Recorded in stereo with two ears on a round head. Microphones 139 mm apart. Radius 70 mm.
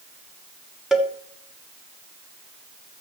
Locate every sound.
0.9 s a cowbell: 5° right (ahead or behind), 1.1 m